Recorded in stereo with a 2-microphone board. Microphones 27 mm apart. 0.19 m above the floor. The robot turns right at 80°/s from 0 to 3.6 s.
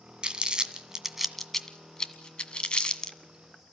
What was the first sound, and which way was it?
Crumpling, 40° right (ahead or behind).